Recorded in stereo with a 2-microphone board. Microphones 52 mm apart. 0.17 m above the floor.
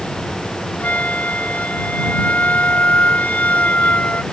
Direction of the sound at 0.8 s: 30° left (ahead or behind).